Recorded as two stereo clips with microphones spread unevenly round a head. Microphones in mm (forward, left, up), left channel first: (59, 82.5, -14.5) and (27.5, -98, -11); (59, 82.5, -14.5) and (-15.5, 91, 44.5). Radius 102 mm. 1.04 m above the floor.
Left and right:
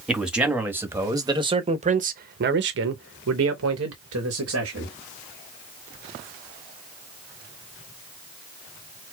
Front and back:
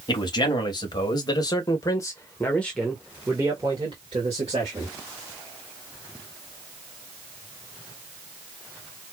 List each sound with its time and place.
0.1 s a man speaking: 10° right, 1.5 m; by 5.0 s 130° right, 1.5 m